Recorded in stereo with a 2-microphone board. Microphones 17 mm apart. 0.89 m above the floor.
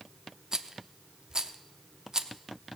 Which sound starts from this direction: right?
A rattle, at 0.5 s.